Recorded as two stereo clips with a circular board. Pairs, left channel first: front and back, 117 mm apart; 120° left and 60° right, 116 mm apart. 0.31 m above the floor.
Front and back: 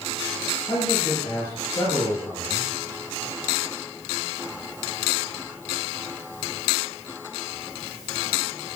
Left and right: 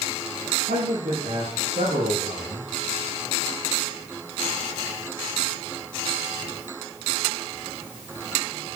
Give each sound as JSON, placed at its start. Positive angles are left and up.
{"t": 0.7, "sound": "a man speaking", "azimuth_deg": -70, "distance_m": 6.5}